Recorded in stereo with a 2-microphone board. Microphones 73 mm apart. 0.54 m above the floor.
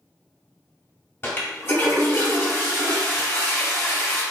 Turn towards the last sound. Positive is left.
turn(degrees=35)  # may be behind; listen again after turning